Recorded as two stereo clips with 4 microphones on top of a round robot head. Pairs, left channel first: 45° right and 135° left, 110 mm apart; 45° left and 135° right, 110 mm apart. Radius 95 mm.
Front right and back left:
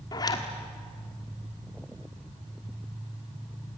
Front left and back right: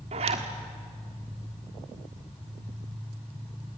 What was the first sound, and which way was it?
A zipper, 100° right.